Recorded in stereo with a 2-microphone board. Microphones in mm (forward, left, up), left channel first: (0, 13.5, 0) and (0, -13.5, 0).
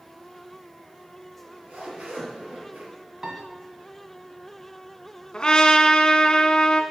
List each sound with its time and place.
1.4 s a zipper: 70° right (ahead or behind), 4 m
3.2 s a piano: 30° right (ahead or behind), 1.5 m
5.3 s a trumpet: 35° left (ahead or behind), 0.7 m